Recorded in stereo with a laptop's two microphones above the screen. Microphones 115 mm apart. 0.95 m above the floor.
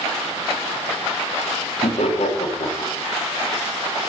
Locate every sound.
1.8 s laughter: 70° left (ahead or behind), 1.9 m